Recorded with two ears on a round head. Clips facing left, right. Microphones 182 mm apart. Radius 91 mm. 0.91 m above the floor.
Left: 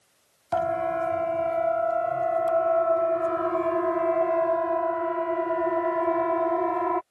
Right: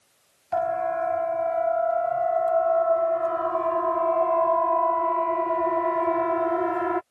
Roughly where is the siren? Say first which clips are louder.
Even; left.